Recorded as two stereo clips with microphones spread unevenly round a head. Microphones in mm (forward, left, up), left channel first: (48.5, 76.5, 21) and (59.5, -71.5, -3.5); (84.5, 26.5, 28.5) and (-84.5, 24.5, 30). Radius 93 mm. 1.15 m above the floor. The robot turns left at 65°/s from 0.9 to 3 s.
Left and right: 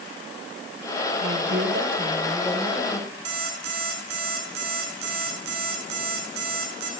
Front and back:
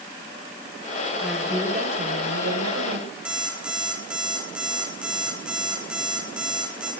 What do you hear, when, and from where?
1.2 s a woman speaking: 90° right, 5.5 m; by 3.1 s 155° left, 5.5 m
3.2 s an alarm clock: 95° right, 8.5 m